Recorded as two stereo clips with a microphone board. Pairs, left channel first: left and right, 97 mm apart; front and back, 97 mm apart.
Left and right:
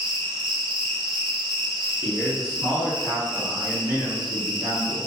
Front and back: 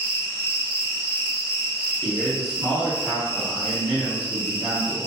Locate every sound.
0.0 s an insect: 60° right, 0.8 m
2.0 s a man speaking: 90° right, 1.7 m